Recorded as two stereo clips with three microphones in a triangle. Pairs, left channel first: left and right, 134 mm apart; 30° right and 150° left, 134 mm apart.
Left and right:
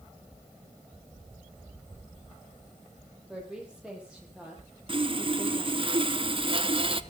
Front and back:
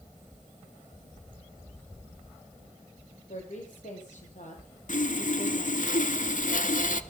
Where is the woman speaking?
5° right, 8 m; by 5.9 s 10° right, 10 m.